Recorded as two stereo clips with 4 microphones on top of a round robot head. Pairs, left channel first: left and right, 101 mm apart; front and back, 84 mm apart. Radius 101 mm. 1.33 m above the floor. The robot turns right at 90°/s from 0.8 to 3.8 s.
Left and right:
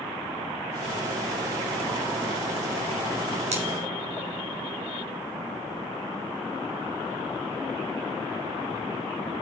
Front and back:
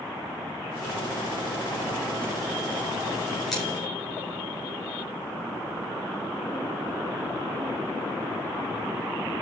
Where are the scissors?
90° right, 4 m; by 3.6 s 80° right, 4 m.